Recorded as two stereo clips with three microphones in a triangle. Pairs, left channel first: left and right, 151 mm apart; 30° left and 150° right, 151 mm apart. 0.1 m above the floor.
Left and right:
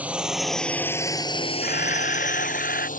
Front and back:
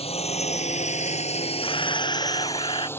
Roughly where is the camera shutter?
Left.